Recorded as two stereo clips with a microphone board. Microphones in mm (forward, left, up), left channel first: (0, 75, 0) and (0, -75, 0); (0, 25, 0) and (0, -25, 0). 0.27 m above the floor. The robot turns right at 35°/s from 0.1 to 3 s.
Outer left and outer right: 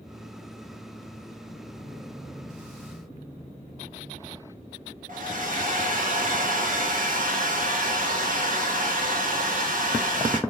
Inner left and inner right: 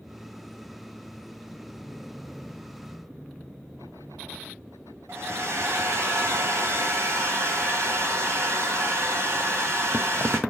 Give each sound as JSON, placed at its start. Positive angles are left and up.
{"t": 5.1, "sound": "a hair dryer", "side_deg": -65, "distance_m": 1.7}